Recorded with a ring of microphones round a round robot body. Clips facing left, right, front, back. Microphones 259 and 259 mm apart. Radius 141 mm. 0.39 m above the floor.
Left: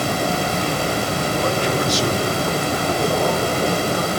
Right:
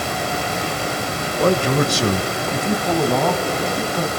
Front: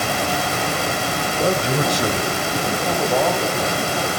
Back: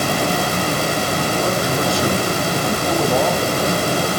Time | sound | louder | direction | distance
1.4 | a man speaking | right 7 dB, front 4 dB | 55° right | 1.3 m